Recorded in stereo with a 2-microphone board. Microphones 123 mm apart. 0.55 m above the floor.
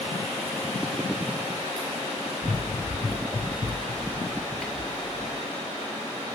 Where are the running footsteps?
25° left (ahead or behind), 3 m; by 5.4 s centre (ahead or behind), 3.5 m.